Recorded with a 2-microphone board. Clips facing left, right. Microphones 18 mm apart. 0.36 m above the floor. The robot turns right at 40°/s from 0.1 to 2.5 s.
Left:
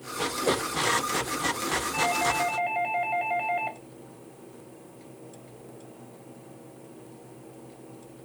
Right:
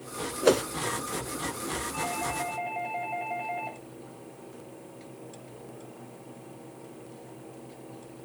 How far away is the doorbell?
About 2.5 m.